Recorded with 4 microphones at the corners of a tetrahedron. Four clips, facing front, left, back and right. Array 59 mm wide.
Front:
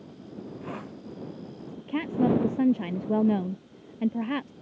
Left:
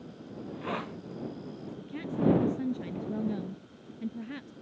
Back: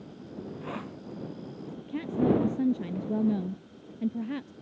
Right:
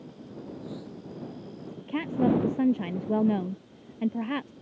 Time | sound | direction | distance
0.4 | a hiss | 90° left | ?
1.9 | a woman speaking | 40° right | ?